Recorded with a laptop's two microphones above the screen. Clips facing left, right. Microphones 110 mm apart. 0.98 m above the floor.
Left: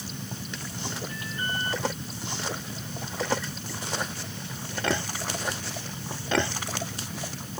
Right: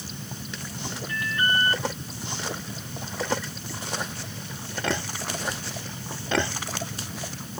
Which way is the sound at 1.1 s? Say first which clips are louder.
Right 7 dB; 90° right.